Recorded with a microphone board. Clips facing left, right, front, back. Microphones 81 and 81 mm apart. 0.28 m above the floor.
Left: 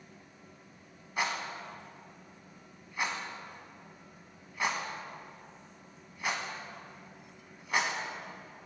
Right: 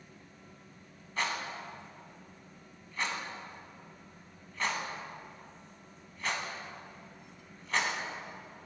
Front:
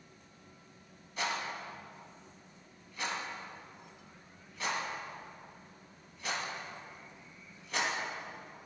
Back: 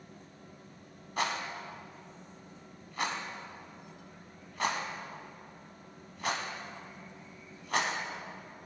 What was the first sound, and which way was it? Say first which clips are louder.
A rattle: left 1 dB, back 2 dB; 165° left.